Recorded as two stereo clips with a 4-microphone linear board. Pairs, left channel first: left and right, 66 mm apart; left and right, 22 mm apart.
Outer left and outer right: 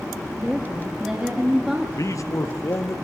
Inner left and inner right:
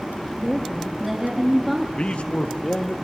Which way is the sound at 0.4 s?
10° right (ahead or behind).